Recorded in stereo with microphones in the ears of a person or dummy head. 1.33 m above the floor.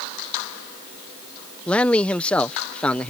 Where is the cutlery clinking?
I don't hear cutlery clinking.